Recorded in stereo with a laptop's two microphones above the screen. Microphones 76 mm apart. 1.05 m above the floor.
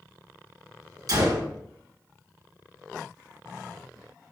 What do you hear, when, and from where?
1.1 s a gunshot: 55° right (ahead or behind), 1.5 m